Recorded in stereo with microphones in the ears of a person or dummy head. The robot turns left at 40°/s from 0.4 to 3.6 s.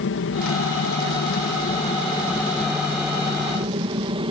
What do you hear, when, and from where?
0.0 s an aircraft: 95° left; by 4.3 s 30° right